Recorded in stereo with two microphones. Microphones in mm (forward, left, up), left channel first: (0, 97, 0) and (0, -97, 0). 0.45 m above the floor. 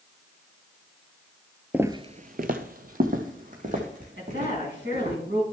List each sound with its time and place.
1.7 s footsteps: 10° right (ahead or behind), 0.5 m; by 5.2 s 40° right (ahead or behind), 3 m
4.2 s a woman speaking: 70° right (ahead or behind), 4 m